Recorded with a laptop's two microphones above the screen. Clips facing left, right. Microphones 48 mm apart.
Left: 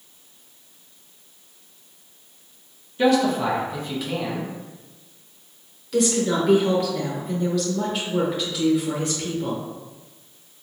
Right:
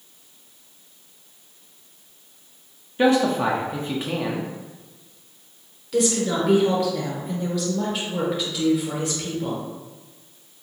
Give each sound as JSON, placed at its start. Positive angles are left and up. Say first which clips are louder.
{"t": 3.0, "sound": "a man speaking", "louder": "even", "side_deg": -30, "distance_m": 0.5}
{"t": 5.9, "sound": "a woman speaking", "louder": "left 1 dB", "side_deg": -5, "distance_m": 0.9}